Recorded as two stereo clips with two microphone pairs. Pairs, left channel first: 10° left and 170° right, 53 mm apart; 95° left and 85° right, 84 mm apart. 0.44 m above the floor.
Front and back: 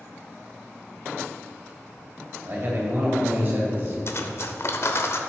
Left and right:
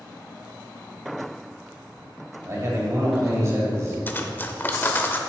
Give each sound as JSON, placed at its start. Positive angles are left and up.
{"t": 2.5, "sound": "a man speaking", "azimuth_deg": -130, "distance_m": 2.0}
{"t": 4.1, "sound": "cutlery clinking", "azimuth_deg": 35, "distance_m": 0.6}